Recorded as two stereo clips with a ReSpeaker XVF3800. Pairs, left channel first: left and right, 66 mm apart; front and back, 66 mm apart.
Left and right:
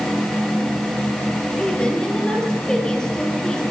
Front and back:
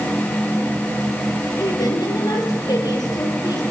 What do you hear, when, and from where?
1.6 s a woman speaking: 10° left, 6.5 m